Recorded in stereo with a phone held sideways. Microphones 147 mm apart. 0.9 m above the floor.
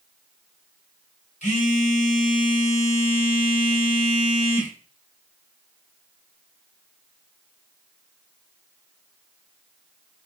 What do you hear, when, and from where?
1.4 s a phone buzzing: 55° left (ahead or behind), 1.6 m